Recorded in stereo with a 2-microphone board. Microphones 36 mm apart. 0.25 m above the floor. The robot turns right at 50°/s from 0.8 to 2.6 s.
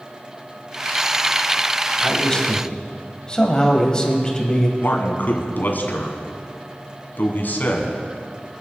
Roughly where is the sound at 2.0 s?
Centre.